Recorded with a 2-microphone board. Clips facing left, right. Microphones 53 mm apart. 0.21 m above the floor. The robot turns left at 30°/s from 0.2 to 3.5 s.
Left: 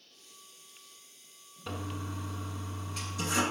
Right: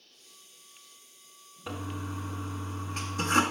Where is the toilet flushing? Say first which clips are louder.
Right 2 dB; 10° right, 0.5 m; by 3.4 s 65° right, 0.5 m.